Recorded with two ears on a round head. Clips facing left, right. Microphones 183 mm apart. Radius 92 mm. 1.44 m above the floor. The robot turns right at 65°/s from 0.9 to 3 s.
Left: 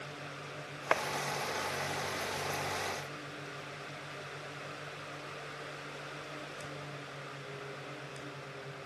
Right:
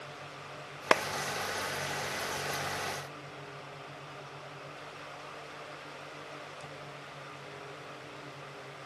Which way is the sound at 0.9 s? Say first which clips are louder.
Right 5 dB; 55° right (ahead or behind).